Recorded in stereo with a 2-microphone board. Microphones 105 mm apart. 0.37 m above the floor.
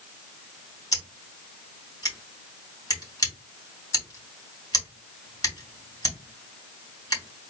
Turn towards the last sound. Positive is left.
turn(degrees=35)  # may be behind; listen again after turning